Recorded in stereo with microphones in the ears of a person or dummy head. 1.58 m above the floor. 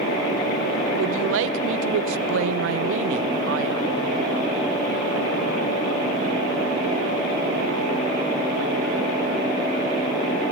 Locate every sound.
1.0 s a man speaking: 80° right, 0.6 m